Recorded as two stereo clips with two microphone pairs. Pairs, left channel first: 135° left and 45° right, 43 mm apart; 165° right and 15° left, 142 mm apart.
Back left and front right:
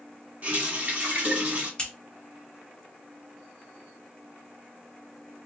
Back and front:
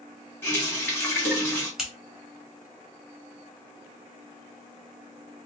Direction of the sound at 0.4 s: 90° right.